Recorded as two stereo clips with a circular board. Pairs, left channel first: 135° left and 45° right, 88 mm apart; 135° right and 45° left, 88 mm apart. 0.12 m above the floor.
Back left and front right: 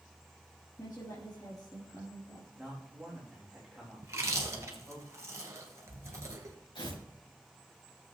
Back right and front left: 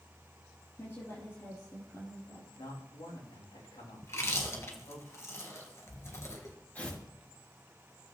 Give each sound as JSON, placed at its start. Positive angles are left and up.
{"t": 0.8, "sound": "a woman speaking", "azimuth_deg": 170, "distance_m": 3.0}
{"t": 2.6, "sound": "a man speaking", "azimuth_deg": -135, "distance_m": 5.5}
{"t": 4.0, "sound": "chewing", "azimuth_deg": -90, "distance_m": 1.6}
{"t": 6.8, "sound": "tearing paper", "azimuth_deg": 155, "distance_m": 5.0}